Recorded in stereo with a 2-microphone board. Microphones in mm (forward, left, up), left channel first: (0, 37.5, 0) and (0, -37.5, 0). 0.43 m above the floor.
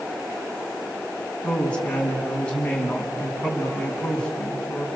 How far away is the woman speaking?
About 4.5 m.